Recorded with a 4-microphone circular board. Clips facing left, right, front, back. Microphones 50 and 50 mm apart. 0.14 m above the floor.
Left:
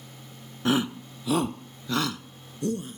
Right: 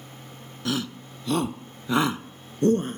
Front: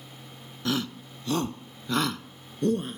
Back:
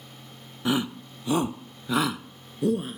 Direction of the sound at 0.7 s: 125° left.